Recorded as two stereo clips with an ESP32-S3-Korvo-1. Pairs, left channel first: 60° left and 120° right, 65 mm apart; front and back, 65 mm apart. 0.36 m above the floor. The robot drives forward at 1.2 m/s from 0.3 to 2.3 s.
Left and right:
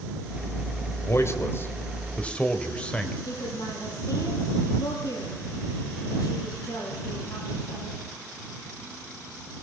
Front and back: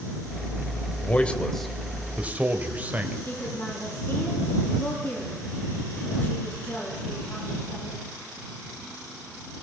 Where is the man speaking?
50° left, 1.9 m; by 3.1 s 125° left, 1.8 m.